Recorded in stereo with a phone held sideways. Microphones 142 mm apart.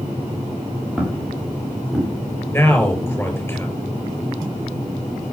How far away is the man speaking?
About 6 m.